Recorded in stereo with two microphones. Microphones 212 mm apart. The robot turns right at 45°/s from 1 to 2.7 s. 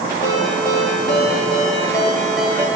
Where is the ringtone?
120° left, 2 m; by 2.7 s 165° right, 2 m.